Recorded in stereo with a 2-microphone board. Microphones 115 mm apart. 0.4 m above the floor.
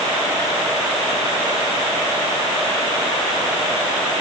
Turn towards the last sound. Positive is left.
No sound to turn to.